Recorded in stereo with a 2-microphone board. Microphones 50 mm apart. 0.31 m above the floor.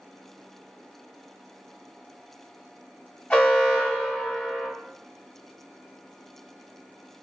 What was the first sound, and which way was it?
An alarm, 20° left (ahead or behind).